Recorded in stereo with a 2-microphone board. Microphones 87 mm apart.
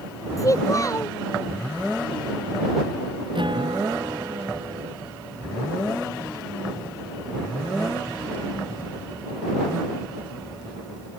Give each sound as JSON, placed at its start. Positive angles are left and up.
{"t": 0.4, "sound": "a child speaking", "side_deg": 40}
{"t": 3.4, "sound": "a guitar", "side_deg": -60}